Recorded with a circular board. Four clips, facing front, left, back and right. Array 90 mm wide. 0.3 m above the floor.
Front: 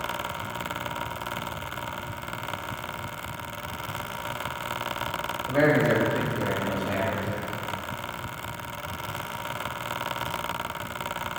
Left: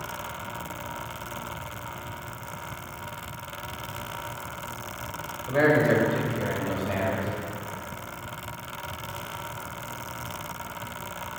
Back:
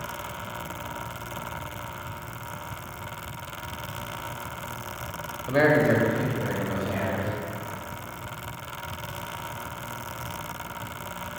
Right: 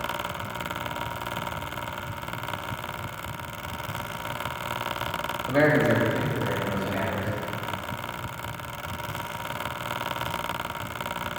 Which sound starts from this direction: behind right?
A man speaking, at 5.5 s.